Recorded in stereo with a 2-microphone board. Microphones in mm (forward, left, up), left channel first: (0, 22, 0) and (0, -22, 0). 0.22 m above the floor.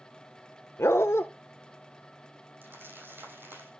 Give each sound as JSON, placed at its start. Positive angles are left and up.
{"t": 0.8, "sound": "a dog barking", "side_deg": 70, "distance_m": 0.9}
{"t": 2.6, "sound": "crumpling", "side_deg": -55, "distance_m": 5.0}